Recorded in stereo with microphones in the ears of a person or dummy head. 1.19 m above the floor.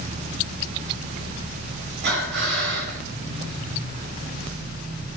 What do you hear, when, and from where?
2.0 s breathing: 60° right (ahead or behind), 5 m